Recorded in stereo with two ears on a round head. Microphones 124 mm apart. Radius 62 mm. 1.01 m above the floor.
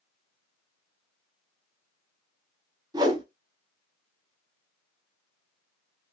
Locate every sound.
2.9 s a whoosh: 30° right (ahead or behind), 1.0 m